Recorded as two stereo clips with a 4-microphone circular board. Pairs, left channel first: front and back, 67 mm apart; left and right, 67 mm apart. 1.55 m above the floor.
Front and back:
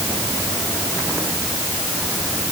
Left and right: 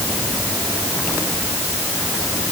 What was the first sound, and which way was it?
Only background noise.